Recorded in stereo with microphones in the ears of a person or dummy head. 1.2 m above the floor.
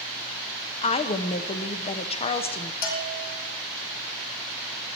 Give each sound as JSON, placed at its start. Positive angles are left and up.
{"t": 0.8, "sound": "a woman speaking", "side_deg": 30, "distance_m": 0.7}
{"t": 2.8, "sound": "a bell", "side_deg": 65, "distance_m": 2.5}